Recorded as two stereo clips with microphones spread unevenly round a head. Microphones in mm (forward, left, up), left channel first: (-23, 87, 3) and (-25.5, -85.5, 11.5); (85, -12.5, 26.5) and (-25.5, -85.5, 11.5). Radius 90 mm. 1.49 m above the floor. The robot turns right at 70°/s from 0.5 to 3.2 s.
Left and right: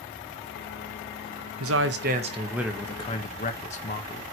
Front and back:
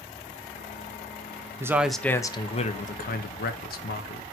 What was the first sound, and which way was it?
A man speaking, 80° right.